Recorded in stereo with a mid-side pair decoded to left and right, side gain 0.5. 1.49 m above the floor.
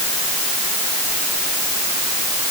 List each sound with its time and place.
Only background noise.